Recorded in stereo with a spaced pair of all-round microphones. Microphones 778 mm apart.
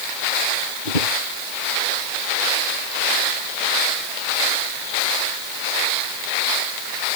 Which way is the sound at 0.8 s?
85° left.